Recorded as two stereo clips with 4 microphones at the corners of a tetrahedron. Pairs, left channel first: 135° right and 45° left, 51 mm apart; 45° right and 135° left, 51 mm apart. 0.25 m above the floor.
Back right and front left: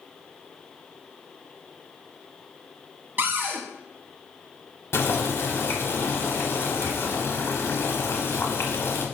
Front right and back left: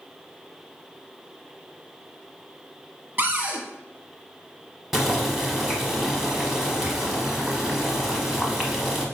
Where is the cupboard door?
85° left, 0.6 m.